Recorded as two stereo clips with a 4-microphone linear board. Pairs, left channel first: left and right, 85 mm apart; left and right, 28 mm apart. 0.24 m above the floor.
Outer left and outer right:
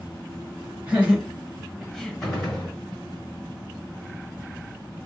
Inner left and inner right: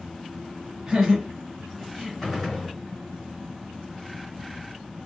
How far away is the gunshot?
About 2 m.